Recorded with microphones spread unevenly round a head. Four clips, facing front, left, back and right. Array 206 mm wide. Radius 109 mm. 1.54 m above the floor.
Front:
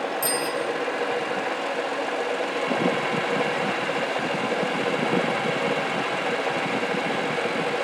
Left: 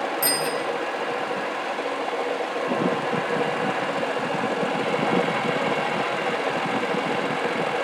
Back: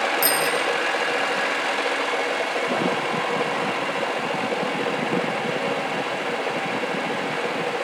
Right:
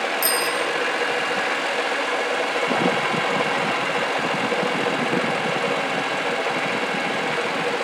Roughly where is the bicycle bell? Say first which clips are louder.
Right 2 dB, back 4 dB; behind left.